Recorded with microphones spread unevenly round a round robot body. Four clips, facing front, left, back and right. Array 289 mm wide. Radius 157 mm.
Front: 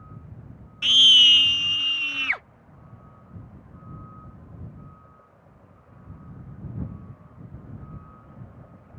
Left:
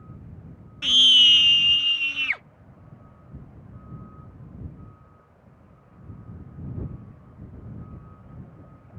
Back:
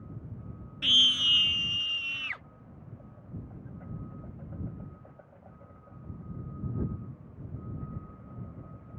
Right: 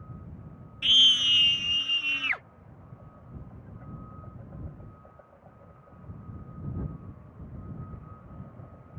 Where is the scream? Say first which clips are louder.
Left 6 dB, front 9 dB; 130° left; by 2.4 s 20° right.